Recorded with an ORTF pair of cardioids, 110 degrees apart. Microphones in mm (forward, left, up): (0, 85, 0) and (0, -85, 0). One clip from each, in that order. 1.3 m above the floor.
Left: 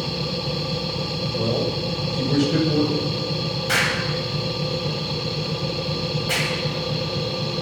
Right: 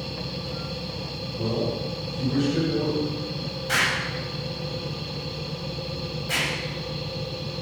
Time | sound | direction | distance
0.0 | a machine running | 45° left | 1.2 m
1.4 | a man speaking | 55° left | 7.5 m
3.7 | an explosion | 35° left | 9 m